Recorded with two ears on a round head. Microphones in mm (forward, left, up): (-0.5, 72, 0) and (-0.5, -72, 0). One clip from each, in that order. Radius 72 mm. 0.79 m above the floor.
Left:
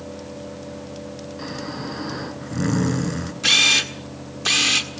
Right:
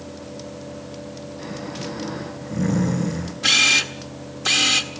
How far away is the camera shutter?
About 1.6 m.